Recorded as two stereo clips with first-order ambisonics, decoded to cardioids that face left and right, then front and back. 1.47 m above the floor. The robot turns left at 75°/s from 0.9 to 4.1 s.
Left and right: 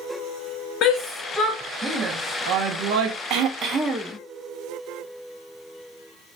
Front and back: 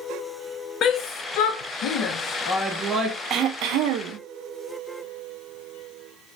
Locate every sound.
0.8 s a shout: 50° left, 0.7 m; by 3.2 s 120° right, 0.7 m
3.3 s throat clearing: 130° right, 0.6 m; by 4.2 s 170° left, 0.6 m